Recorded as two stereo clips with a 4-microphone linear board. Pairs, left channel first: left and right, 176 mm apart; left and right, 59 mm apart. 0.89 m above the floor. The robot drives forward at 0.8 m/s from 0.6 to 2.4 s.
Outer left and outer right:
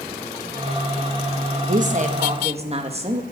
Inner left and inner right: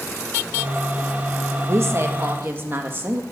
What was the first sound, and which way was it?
A woman speaking, 50° right (ahead or behind).